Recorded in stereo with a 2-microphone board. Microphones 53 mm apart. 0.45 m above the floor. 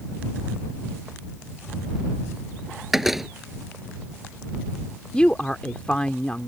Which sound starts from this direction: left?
A woman speaking, at 5.1 s.